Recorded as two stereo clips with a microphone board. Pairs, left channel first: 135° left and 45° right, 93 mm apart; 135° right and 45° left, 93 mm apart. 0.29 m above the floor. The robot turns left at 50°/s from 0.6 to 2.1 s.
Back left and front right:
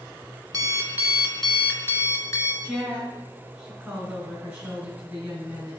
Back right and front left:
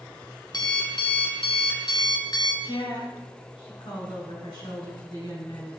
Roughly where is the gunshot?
I don't hear a gunshot.